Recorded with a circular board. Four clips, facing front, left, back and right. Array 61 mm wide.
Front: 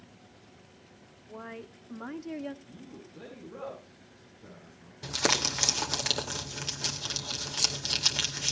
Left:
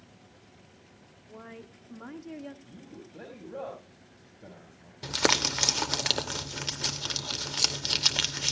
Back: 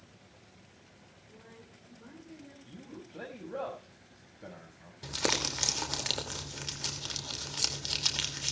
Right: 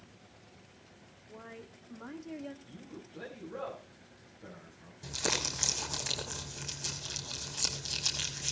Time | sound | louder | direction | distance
1.3 | a woman speaking | left 3 dB, front 12 dB | 10° left | 1.4 m
2.6 | a man speaking | left 1 dB, even | 155° left | 5.5 m
5.0 | crumpling | left 9 dB, front 3 dB | 80° left | 2.5 m